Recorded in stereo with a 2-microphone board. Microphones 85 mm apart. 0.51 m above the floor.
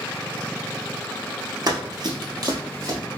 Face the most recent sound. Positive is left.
turn(degrees=-40)  # may be behind; listen again after turning